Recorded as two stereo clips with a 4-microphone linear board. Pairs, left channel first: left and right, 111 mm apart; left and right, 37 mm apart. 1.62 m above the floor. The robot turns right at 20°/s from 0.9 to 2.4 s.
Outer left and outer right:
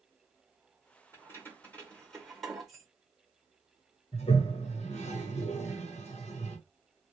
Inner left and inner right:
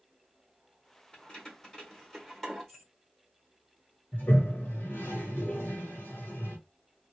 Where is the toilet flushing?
80° left, 1.1 m.